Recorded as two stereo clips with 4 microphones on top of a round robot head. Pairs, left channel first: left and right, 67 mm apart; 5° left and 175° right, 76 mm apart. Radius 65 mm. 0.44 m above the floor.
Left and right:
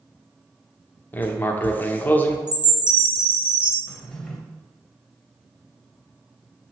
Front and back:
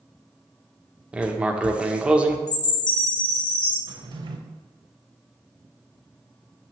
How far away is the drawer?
About 0.7 m.